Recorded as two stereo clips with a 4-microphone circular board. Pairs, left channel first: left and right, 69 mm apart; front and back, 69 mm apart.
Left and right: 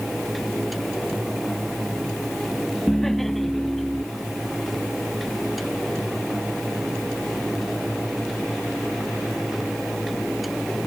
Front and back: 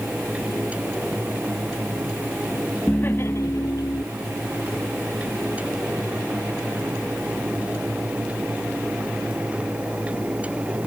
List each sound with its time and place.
2.9 s laughter: 15° left; by 4.0 s straight ahead